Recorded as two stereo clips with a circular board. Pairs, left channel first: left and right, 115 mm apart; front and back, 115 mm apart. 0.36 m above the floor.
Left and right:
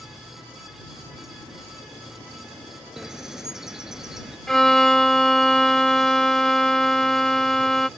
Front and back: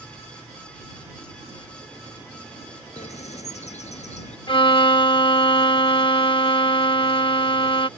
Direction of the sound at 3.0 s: 5° right.